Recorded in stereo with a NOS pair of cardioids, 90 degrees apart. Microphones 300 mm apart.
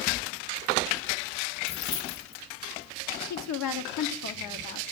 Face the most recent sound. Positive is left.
turn(degrees=70)